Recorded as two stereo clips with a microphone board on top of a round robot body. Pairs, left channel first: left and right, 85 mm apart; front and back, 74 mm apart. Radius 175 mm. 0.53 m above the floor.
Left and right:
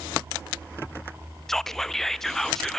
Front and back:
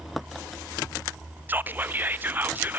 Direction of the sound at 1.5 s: 170° left.